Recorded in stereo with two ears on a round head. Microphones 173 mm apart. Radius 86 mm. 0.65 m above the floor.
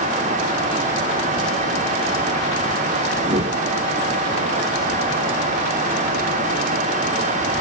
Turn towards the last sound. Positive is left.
turn(degrees=-30)  # may be behind; listen again after turning